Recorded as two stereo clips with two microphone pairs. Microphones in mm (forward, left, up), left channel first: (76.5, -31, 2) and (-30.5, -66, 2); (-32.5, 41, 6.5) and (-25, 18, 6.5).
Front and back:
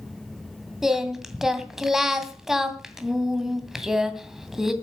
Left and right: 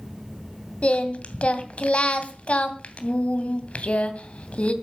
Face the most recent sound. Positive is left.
turn(degrees=110)